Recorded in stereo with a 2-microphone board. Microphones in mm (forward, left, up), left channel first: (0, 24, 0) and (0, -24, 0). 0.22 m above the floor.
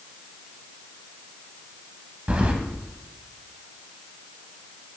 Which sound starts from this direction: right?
Keys jangling, at 2.3 s.